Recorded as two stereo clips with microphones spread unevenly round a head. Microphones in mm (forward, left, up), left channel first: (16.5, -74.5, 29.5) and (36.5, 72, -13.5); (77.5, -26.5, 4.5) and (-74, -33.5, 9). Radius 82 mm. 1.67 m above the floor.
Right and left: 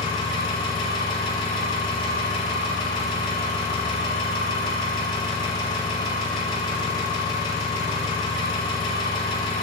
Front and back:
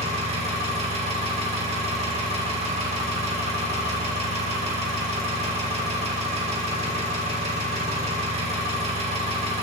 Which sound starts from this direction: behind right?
An engine running, at 0.0 s.